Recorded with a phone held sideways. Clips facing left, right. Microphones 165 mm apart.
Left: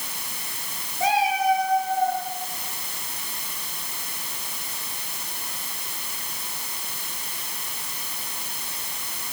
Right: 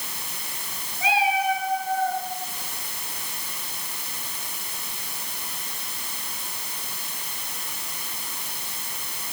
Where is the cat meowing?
40° left (ahead or behind), 5.5 m; by 2.2 s 35° left (ahead or behind), 6.5 m.